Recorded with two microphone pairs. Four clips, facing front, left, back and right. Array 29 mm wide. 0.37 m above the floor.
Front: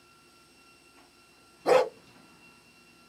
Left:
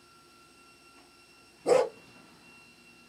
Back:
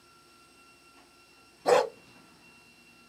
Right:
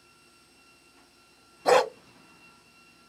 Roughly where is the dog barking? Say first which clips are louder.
Right 3 dB, front 1 dB; right.